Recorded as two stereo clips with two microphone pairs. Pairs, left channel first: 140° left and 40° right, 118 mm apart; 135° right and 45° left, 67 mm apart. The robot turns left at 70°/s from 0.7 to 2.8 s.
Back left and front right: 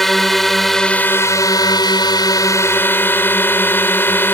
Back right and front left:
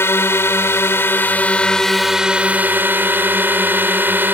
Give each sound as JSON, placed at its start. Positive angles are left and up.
{"t": 0.0, "sound": "a drone", "azimuth_deg": -135}